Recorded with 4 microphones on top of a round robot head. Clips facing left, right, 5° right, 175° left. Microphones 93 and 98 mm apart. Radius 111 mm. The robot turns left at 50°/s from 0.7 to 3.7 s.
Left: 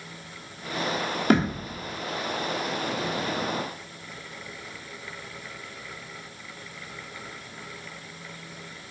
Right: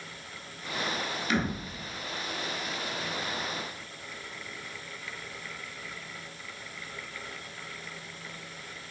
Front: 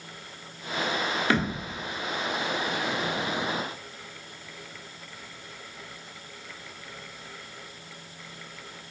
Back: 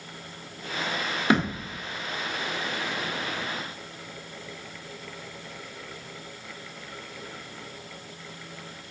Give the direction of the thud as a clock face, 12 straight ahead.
8 o'clock.